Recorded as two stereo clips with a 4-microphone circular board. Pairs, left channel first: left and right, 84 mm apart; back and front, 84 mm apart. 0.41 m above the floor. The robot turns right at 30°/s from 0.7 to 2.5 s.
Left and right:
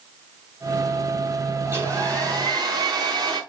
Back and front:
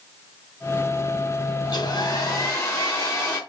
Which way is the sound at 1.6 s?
150° right.